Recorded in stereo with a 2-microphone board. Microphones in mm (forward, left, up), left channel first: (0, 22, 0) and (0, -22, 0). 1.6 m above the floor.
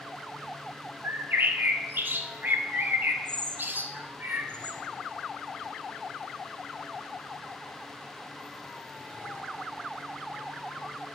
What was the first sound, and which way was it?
A bird, 45° right (ahead or behind).